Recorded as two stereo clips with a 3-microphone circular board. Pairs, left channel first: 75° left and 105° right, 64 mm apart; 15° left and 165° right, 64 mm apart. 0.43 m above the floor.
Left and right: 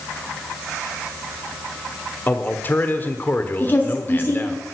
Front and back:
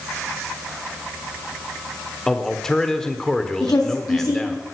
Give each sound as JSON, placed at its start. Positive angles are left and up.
{"t": 2.3, "sound": "a man speaking", "azimuth_deg": 90, "distance_m": 1.2}
{"t": 3.6, "sound": "a woman speaking", "azimuth_deg": 15, "distance_m": 3.0}